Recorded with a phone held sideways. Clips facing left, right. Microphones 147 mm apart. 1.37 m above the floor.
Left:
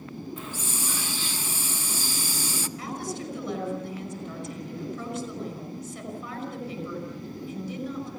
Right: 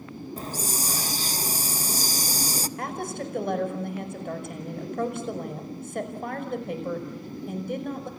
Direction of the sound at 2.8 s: 55° right (ahead or behind).